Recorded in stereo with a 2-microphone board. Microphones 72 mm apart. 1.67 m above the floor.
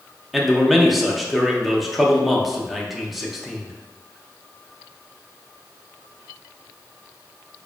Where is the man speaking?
Centre (ahead or behind), 0.6 m.